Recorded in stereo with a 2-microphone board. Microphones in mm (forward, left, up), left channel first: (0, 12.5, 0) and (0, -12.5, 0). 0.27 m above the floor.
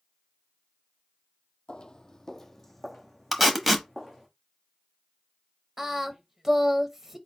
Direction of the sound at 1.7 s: 45° left (ahead or behind).